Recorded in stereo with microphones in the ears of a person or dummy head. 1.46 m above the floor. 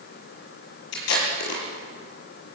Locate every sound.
0.9 s tape being pulled: 75° left (ahead or behind), 7.5 m